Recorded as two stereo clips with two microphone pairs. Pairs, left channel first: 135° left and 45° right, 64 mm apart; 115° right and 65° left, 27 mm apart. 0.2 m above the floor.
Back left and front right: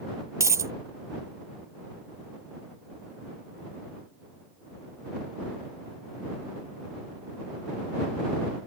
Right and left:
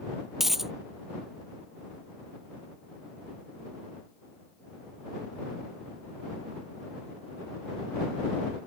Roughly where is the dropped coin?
Ahead.